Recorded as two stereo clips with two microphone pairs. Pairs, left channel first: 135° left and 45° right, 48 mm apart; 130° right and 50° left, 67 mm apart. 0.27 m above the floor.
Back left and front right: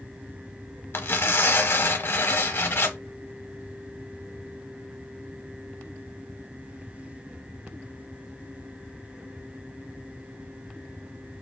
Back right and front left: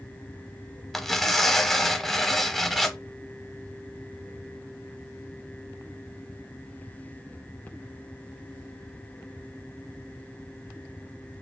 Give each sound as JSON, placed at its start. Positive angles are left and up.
{"t": 0.9, "sound": "tearing paper", "azimuth_deg": 145, "distance_m": 0.6}